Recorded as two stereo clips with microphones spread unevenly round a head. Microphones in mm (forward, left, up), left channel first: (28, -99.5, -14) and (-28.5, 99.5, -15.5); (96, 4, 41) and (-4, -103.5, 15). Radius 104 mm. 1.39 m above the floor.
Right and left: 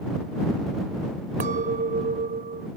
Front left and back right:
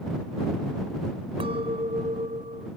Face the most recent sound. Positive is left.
turn(degrees=160)